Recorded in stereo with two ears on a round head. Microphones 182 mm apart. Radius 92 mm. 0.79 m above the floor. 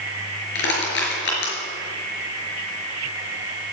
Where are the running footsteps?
No running footsteps in this recording.